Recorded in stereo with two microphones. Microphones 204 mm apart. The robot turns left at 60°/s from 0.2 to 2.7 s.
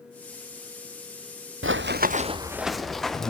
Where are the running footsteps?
80° right, 0.9 m; by 3.3 s centre (ahead or behind), 2.5 m.